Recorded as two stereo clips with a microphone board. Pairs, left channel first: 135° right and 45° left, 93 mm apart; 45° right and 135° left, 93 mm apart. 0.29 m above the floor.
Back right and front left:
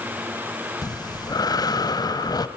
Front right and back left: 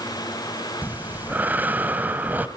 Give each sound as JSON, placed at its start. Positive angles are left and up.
{"t": 0.8, "sound": "breathing", "azimuth_deg": -160, "distance_m": 0.8}